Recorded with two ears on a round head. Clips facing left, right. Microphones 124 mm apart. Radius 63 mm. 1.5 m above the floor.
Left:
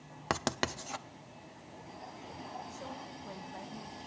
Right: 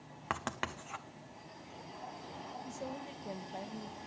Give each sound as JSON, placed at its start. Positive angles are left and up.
{"t": 0.3, "sound": "writing", "side_deg": 40, "distance_m": 0.6}
{"t": 2.6, "sound": "a woman speaking", "side_deg": -30, "distance_m": 1.2}